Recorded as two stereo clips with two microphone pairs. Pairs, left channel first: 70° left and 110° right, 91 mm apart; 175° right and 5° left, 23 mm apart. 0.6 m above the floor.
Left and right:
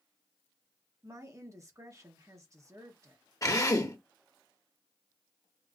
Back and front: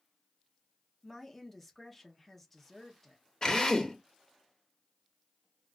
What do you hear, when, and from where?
1.0 s a woman speaking: 105° right, 0.8 m
3.4 s a drill: 125° left, 0.7 m